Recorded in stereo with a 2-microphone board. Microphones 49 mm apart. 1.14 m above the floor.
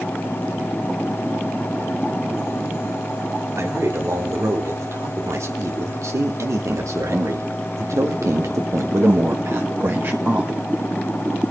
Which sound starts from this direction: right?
A man speaking, at 3.6 s.